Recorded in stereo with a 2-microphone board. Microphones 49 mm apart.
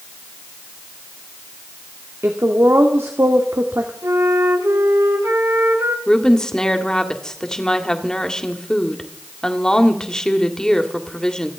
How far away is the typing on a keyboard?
I don't hear typing on a keyboard.